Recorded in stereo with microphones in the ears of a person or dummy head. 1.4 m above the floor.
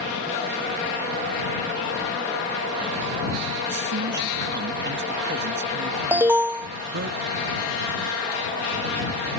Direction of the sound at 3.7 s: 60° right (ahead or behind).